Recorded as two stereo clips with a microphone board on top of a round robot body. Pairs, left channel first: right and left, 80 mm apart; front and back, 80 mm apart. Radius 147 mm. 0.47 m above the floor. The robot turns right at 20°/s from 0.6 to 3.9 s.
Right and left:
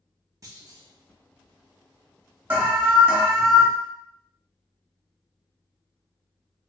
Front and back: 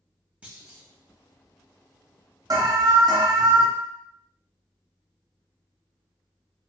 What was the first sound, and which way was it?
A clunk, 110° left.